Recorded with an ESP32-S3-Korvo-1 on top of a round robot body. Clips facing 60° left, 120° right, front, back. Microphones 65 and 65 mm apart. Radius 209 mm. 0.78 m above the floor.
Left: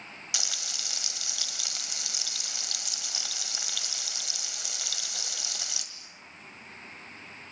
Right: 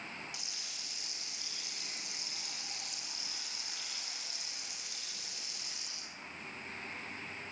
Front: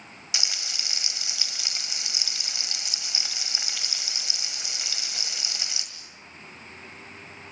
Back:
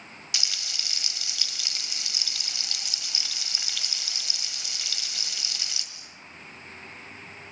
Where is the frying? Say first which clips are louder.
Left 8 dB, front 2 dB; 70° left, 1.6 m.